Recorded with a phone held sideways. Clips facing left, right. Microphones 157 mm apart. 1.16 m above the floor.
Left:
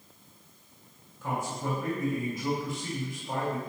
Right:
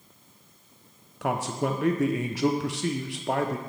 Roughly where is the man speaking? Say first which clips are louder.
Right 5 dB; right.